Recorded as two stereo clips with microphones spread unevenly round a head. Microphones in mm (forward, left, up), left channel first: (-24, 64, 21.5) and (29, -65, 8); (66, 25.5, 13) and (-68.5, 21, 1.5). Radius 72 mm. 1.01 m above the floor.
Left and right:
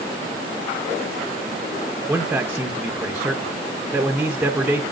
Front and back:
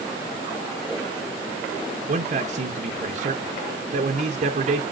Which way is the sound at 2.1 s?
145° right.